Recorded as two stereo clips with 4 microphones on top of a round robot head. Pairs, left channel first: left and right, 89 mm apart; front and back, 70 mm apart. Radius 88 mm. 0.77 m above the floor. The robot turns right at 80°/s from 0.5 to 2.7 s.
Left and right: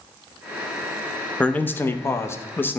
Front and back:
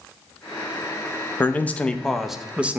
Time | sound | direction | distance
1.4 | a man speaking | 30° left | 0.6 m